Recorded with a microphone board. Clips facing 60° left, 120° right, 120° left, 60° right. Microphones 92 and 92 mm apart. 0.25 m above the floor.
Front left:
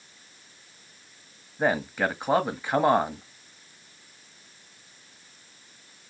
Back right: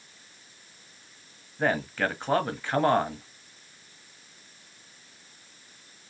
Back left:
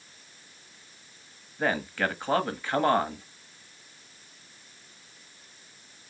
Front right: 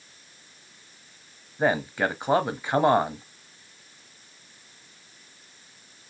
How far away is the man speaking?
About 1.1 m.